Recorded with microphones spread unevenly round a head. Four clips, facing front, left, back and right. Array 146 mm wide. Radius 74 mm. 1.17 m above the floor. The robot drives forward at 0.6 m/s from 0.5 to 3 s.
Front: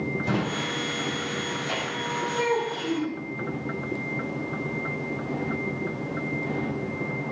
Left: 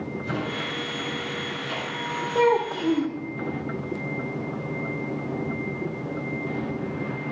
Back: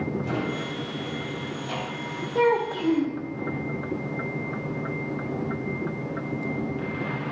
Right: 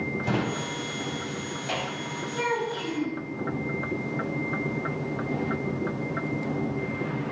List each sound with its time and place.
0.2 s a drawer: 65° right, 4 m; by 2.0 s 80° right, 3.5 m
2.4 s a child speaking: 120° left, 1.6 m; by 3.2 s 130° left, 1.8 m